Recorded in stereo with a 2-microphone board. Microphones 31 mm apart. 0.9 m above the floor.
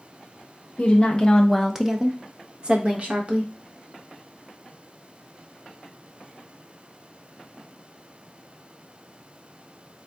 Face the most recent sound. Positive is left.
turn(degrees=-40)  # may be behind; listen again after turning